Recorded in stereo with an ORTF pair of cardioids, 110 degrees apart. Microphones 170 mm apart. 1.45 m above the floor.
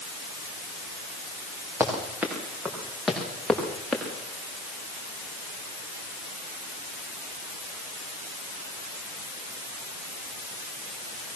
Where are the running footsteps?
10° right, 7.5 m; by 4.0 s 5° left, 7 m.